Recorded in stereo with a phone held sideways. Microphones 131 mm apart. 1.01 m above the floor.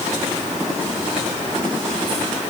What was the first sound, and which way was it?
Only background noise.